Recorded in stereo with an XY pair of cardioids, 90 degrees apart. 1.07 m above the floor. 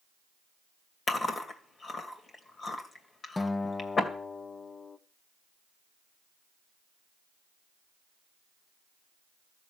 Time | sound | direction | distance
1.1 | chewing | 45° left | 2.5 m
3.4 | a guitar | 25° left | 0.8 m